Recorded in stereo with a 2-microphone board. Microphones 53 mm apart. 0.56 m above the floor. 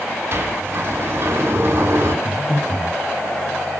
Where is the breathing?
60° left (ahead or behind), 4 m.